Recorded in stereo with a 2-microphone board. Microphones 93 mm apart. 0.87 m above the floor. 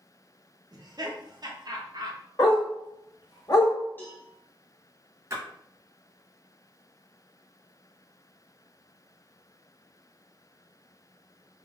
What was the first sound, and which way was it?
Laughter, 45° right (ahead or behind).